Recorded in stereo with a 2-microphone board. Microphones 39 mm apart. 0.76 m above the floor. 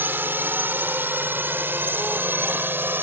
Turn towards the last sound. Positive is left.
turn(degrees=-65)  # may be behind; listen again after turning